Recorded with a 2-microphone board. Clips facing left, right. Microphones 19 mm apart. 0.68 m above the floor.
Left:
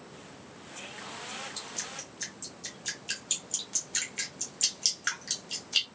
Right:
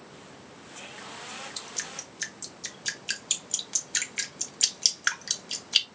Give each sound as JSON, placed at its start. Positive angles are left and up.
{"t": 1.6, "sound": "dripping", "side_deg": -25, "distance_m": 1.5}